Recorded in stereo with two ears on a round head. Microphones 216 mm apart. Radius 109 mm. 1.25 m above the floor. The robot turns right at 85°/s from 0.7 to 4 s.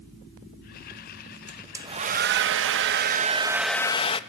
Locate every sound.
1.5 s a hair dryer: 175° left, 0.6 m; by 4.2 s 25° left, 0.6 m